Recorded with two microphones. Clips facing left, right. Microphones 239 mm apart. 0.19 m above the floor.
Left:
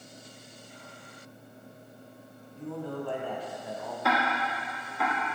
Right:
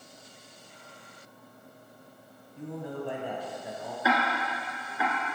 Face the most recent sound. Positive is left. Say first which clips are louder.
# right 1 dB
turn(degrees=-5)  # may be behind; listen again after turning